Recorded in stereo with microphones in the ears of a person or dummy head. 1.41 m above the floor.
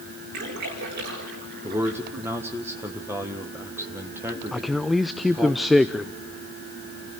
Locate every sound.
0.3 s a splash: 50° right (ahead or behind), 7 m
1.6 s a man speaking: 15° right (ahead or behind), 1.3 m
4.5 s a man speaking: 5° left (ahead or behind), 0.5 m